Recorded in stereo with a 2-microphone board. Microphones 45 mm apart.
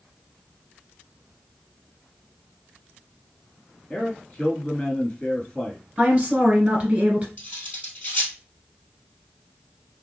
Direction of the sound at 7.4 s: 35° left (ahead or behind).